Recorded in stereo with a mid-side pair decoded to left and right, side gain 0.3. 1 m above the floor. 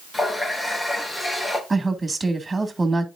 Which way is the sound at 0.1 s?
30° left.